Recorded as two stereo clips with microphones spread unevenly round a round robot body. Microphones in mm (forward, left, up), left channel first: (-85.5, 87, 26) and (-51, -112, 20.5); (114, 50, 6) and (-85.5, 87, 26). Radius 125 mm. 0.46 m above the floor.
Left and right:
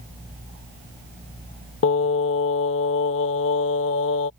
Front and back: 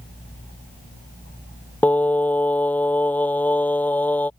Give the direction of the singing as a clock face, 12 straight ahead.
10 o'clock.